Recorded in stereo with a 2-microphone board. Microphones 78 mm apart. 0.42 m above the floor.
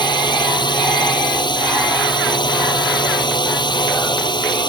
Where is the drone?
80° left.